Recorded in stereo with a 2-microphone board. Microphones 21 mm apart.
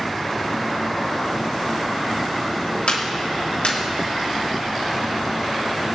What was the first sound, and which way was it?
A clap, 80° left.